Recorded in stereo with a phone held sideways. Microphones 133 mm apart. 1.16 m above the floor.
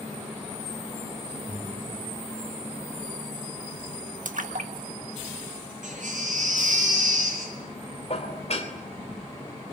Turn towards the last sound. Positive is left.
turn(degrees=55)  # may be behind; listen again after turning